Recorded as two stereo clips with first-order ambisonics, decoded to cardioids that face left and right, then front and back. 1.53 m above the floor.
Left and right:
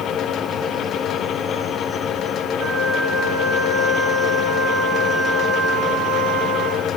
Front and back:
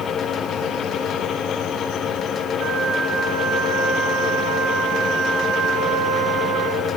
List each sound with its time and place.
2.6 s a flute: 140° right, 2 m